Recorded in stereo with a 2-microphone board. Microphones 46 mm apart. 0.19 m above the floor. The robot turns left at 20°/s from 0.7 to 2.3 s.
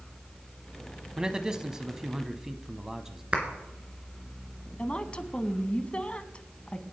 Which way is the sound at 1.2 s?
15° right (ahead or behind).